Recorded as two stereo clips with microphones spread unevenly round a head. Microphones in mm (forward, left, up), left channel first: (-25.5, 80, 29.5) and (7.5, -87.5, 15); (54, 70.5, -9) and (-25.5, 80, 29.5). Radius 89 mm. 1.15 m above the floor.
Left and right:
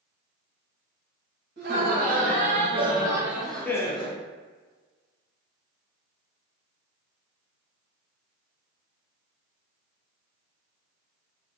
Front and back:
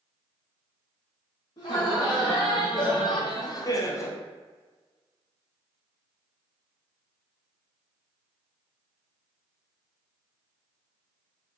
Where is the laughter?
45° right, 1.7 m; by 4.2 s 40° left, 1.0 m.